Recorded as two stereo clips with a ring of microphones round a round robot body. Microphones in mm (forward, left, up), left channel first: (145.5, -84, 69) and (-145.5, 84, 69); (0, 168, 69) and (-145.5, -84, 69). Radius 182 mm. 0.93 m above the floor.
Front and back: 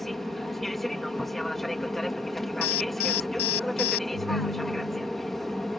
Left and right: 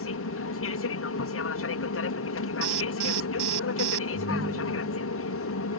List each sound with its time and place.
0.0 s an aircraft: 60° left
2.6 s an alarm: 80° right
4.1 s a ringtone: 50° right